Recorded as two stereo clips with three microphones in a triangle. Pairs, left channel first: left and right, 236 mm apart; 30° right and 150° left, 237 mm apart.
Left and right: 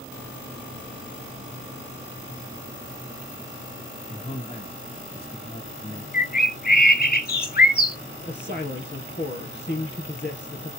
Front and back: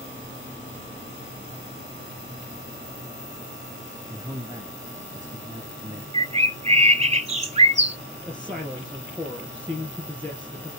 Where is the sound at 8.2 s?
55° left, 2.5 m.